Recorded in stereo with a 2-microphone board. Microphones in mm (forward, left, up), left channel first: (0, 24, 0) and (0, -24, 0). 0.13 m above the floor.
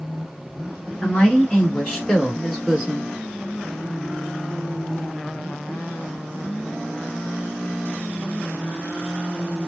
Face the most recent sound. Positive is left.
turn(degrees=-10)  # may be behind; listen again after turning